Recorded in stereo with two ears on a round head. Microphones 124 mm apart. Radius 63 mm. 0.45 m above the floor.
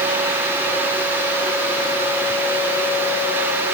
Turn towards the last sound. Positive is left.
No sound to turn to.